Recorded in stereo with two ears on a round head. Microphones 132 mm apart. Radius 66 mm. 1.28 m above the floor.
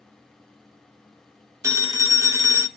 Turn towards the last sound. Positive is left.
turn(degrees=-20)  # may be behind; listen again after turning